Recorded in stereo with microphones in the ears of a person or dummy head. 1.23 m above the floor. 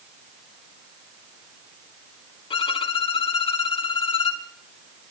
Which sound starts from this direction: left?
A violin, at 2.5 s.